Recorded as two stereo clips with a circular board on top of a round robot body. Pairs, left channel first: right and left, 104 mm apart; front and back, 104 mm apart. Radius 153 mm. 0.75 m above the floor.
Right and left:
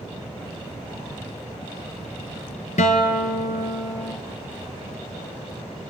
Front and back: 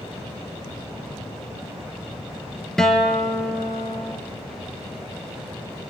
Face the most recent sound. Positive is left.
turn(degrees=-85)